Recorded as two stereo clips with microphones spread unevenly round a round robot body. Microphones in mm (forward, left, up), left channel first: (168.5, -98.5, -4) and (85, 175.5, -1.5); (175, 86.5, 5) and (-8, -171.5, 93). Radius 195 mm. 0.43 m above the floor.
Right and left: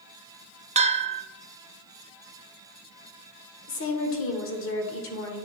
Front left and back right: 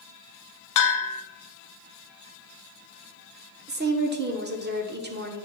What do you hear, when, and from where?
0.8 s a bell: 35° left, 0.8 m
3.7 s a woman speaking: 60° right, 1.2 m